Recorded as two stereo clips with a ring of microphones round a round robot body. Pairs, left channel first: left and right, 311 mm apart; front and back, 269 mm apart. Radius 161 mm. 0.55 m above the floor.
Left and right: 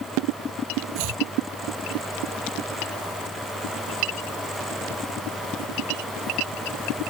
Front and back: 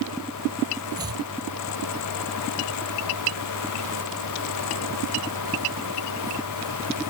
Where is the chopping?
100° right.